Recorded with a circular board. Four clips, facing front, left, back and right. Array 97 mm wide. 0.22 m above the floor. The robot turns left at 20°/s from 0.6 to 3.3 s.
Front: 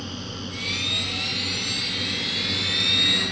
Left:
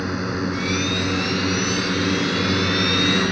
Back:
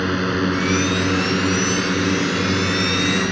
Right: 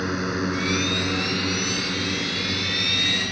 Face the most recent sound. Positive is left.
turn(degrees=130)